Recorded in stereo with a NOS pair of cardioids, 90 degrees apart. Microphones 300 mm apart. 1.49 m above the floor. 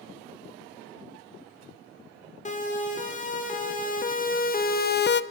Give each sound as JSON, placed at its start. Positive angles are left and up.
{"t": 2.5, "sound": "a siren", "azimuth_deg": 25, "distance_m": 4.0}